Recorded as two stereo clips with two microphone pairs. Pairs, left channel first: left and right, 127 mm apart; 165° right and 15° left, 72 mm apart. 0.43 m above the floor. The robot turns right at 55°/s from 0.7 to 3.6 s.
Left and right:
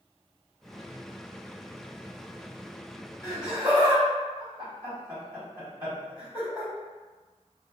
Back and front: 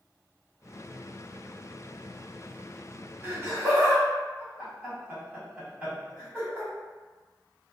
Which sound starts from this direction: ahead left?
Laughter, at 3.2 s.